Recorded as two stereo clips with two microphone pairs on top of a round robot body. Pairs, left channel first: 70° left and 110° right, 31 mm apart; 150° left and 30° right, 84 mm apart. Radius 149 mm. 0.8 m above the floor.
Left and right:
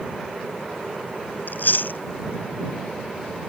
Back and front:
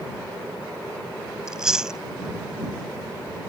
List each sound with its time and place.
1.5 s chewing: 55° left